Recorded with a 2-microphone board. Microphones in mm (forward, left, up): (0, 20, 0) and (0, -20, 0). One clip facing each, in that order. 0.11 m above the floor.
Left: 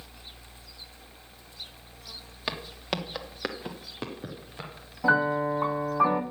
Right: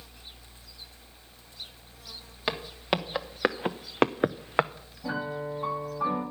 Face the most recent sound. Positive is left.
turn(degrees=75)  # may be behind; listen again after turning